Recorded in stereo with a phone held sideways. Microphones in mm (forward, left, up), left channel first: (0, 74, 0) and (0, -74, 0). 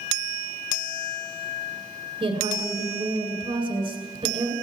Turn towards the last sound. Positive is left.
turn(degrees=-35)  # may be behind; listen again after turning